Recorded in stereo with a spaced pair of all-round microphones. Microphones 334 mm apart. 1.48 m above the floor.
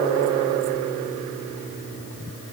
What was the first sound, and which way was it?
Only background noise.